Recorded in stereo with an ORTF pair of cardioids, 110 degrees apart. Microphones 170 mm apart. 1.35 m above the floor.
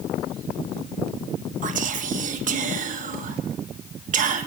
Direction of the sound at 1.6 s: 50° right.